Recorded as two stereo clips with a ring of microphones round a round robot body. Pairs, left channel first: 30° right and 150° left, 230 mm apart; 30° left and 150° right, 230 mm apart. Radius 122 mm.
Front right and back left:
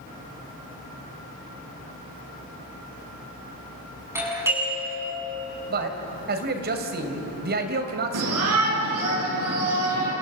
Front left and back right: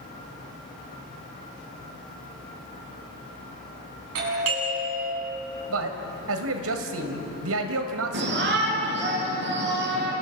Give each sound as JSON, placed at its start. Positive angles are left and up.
{"t": 4.2, "sound": "a doorbell", "azimuth_deg": -130, "distance_m": 8.0}
{"t": 5.7, "sound": "a man speaking", "azimuth_deg": -165, "distance_m": 2.5}
{"t": 8.1, "sound": "a shout", "azimuth_deg": 170, "distance_m": 7.5}